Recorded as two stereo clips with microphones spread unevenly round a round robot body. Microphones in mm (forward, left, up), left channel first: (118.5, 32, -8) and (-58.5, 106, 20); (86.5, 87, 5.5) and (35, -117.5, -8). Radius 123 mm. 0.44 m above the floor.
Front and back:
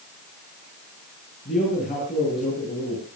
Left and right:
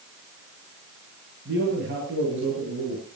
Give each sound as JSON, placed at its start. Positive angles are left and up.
{"t": 1.4, "sound": "a man speaking", "azimuth_deg": -75, "distance_m": 9.0}